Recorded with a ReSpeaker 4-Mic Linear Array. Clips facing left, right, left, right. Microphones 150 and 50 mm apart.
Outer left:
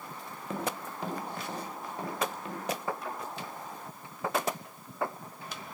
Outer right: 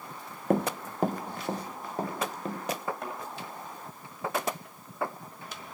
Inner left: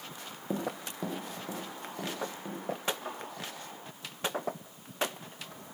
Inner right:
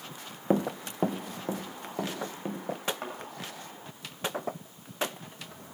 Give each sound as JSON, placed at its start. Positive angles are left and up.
{"t": 0.5, "sound": "running footsteps", "side_deg": -55, "distance_m": 0.8}
{"t": 3.0, "sound": "a thud", "side_deg": -55, "distance_m": 8.0}